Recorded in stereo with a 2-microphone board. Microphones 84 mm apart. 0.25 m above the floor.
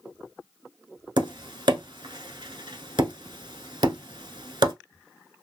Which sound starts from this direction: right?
Tapping, at 1.2 s.